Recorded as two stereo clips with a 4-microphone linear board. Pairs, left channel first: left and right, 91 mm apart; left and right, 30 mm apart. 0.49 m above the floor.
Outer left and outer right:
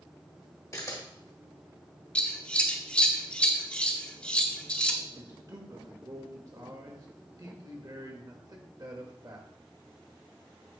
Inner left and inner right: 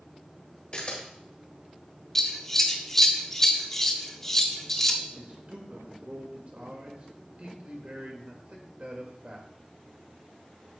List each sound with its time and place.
0.7 s a camera shutter: 40° left (ahead or behind), 1.7 m
2.1 s scissors: 15° left (ahead or behind), 0.7 m
5.1 s a man speaking: 45° right (ahead or behind), 1.5 m